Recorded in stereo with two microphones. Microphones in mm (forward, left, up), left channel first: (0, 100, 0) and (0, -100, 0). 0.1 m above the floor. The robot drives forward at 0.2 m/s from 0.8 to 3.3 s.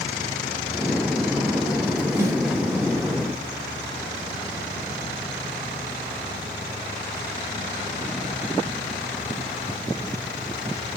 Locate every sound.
2.2 s a snare drum: 10° right (ahead or behind), 2.0 m